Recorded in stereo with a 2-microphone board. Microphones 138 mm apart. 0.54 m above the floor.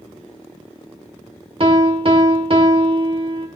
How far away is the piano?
About 1.6 m.